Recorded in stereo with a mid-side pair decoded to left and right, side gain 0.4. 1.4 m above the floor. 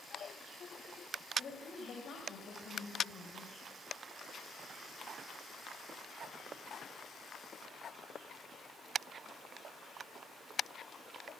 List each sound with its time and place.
1.4 s a woman speaking: 60° left, 8 m; by 3.6 s 80° left, 6 m